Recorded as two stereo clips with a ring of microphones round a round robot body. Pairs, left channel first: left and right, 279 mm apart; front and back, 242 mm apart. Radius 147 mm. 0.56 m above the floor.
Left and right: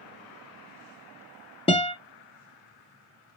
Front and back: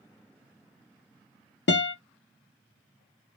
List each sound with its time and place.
1.7 s a guitar: 25° left, 0.9 m